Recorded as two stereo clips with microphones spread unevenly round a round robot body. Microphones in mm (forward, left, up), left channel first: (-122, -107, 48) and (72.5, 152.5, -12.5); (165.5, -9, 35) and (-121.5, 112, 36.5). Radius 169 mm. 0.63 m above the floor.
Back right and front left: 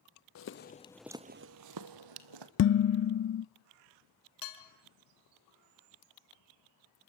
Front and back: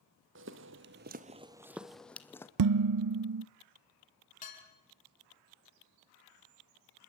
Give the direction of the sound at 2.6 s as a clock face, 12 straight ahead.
6 o'clock.